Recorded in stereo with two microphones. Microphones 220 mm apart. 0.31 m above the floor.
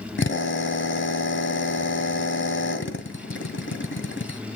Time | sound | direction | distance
0.2 | a drill | 55° left (ahead or behind) | 1.6 m